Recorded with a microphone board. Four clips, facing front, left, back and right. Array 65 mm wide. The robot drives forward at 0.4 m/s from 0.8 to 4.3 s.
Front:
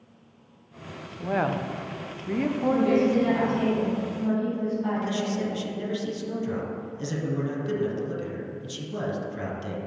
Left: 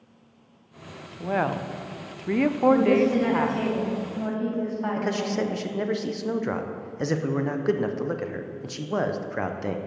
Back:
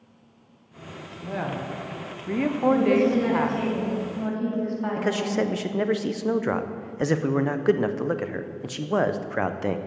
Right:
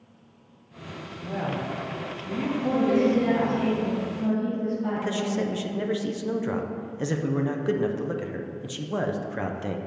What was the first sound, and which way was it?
A woman speaking, 50° left.